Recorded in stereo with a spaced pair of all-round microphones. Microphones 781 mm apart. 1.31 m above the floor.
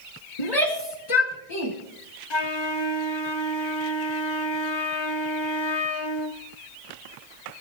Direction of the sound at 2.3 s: 35° left (ahead or behind).